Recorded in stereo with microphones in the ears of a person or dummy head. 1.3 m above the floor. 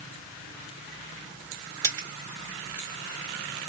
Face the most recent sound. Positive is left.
turn(degrees=-25)  # may be behind; listen again after turning